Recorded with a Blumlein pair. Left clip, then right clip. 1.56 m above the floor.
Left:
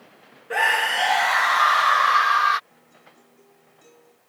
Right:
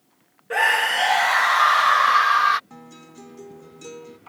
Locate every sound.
0.5 s a scream: 5° right
2.7 s a guitar: 55° right